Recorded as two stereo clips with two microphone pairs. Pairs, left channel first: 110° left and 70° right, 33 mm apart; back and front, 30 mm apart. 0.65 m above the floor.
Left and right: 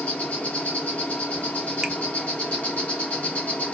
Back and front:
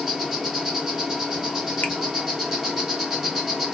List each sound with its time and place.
0.0 s an insect: 75° left, 1.7 m
1.8 s a finger snap: 155° right, 0.7 m